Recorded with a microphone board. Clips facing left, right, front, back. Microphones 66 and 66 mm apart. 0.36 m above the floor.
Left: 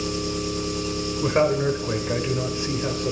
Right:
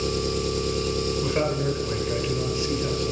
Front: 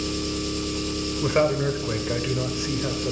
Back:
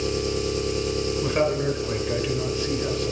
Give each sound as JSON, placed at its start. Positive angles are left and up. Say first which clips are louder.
{"t": 0.0, "sound": "an engine running", "louder": "right 1 dB, back 3 dB", "azimuth_deg": -120, "distance_m": 5.0}
{"t": 1.2, "sound": "a man speaking", "louder": "left 8 dB, front 3 dB", "azimuth_deg": 55, "distance_m": 1.1}